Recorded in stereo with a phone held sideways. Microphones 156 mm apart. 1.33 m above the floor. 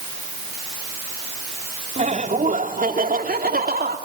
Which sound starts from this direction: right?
Laughter, at 2.0 s.